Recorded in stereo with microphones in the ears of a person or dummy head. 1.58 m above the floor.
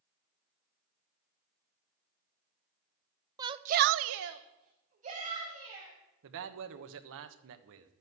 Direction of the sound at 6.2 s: 75° right (ahead or behind).